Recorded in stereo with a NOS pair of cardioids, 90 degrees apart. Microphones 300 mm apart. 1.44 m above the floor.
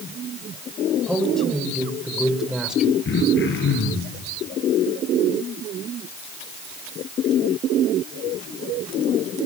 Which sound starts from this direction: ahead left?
Throat clearing, at 3.0 s.